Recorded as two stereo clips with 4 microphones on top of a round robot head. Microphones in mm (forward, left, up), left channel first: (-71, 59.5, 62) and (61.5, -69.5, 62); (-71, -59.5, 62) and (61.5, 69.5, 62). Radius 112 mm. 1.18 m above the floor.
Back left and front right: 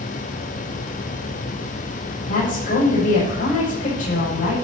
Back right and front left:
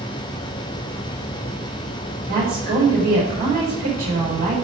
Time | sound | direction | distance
2.3 | a woman speaking | 85° left | 5.5 m